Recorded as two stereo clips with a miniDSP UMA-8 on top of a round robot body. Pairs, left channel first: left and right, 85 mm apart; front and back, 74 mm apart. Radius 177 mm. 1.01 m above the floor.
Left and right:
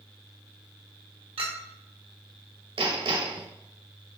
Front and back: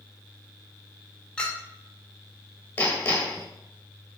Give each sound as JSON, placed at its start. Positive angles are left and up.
{"t": 1.4, "sound": "a clink", "azimuth_deg": -75, "distance_m": 1.2}
{"t": 2.8, "sound": "hammering", "azimuth_deg": -65, "distance_m": 1.3}